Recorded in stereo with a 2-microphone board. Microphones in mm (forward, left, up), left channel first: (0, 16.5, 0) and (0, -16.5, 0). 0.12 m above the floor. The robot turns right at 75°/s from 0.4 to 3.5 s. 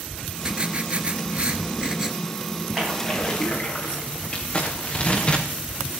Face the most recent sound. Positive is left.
turn(degrees=35)  # may be behind; listen again after turning